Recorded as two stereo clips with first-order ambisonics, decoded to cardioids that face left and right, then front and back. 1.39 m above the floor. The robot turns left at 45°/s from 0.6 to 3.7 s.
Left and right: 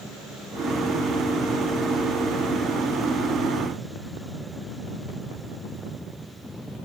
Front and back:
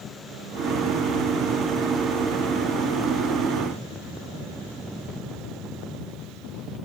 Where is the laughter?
No laughter in this recording.